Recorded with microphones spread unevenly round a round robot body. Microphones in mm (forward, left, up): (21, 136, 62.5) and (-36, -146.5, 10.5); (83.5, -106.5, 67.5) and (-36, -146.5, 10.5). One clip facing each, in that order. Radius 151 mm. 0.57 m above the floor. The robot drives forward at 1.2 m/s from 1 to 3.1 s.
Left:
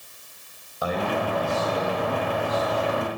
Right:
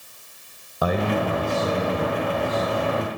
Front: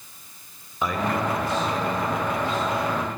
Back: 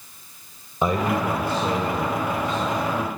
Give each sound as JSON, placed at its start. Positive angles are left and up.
{"t": 0.8, "sound": "a man speaking", "azimuth_deg": -115, "distance_m": 3.0}